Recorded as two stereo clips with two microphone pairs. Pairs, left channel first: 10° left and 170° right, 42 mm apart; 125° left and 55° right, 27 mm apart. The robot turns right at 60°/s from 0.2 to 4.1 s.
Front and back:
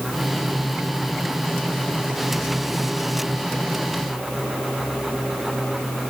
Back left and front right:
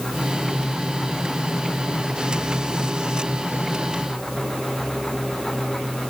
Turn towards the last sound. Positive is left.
No sound to turn to.